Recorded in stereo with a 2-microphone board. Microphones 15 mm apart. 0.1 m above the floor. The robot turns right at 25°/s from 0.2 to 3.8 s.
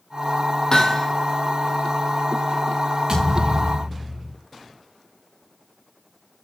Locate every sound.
0.7 s hammering: 45° left (ahead or behind), 2.5 m; by 1.1 s 35° left (ahead or behind), 2.5 m
3.1 s a thud: 40° right (ahead or behind), 6.5 m; by 4.3 s 60° right (ahead or behind), 6.5 m